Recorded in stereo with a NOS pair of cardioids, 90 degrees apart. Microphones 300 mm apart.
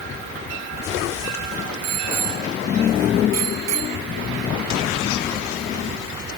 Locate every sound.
1.8 s a bicycle bell: 55° right; by 4.0 s 65° right